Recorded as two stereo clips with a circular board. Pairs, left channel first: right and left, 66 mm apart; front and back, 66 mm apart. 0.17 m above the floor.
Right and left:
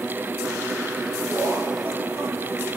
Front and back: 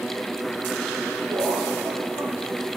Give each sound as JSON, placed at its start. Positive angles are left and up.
{"t": 1.3, "sound": "laughter", "azimuth_deg": 150, "distance_m": 4.5}